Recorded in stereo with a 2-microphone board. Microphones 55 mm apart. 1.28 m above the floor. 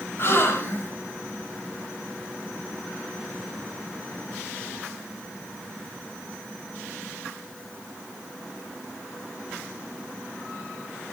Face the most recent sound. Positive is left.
turn(degrees=45)  # may be behind; listen again after turning